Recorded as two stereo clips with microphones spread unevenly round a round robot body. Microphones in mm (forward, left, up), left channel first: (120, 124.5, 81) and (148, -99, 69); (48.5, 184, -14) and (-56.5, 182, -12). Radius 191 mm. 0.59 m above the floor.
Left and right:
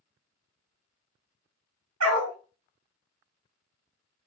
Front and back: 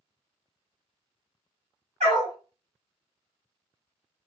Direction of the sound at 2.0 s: 130° right.